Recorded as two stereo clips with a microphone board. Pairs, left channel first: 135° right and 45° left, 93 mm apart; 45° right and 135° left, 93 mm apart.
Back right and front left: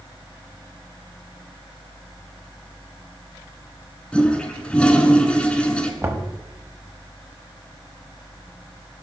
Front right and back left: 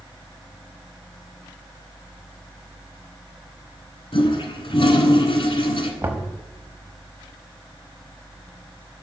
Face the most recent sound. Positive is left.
turn(degrees=90)